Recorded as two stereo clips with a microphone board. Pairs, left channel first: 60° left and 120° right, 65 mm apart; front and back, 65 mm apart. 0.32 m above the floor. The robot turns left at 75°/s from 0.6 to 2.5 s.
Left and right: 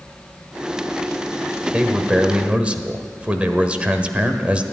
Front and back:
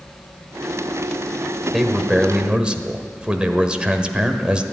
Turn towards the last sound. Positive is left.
turn(degrees=-140)